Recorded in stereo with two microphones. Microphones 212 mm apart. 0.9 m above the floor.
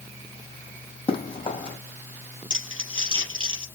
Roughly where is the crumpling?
Right.